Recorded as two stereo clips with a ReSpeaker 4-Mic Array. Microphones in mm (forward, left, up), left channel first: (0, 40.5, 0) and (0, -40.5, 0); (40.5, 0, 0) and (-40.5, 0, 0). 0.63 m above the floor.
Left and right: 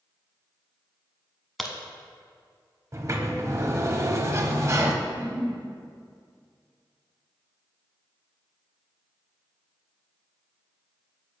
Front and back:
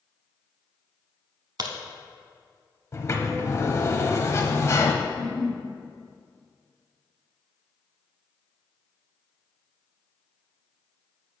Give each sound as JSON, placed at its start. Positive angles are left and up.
{"t": 1.6, "sound": "a crack", "azimuth_deg": 180, "distance_m": 0.8}
{"t": 2.9, "sound": "a sliding door", "azimuth_deg": -45, "distance_m": 0.6}
{"t": 5.0, "sound": "a giggle", "azimuth_deg": -35, "distance_m": 1.8}